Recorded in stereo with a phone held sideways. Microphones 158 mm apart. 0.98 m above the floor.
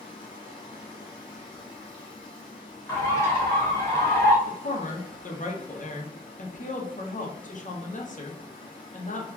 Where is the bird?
15° left (ahead or behind), 0.9 m.